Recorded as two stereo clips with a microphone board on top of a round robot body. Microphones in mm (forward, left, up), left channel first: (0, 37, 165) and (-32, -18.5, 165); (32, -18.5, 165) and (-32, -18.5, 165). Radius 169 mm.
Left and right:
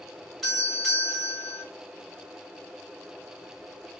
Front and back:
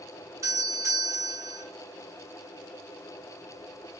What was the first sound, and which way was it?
A doorbell, 150° left.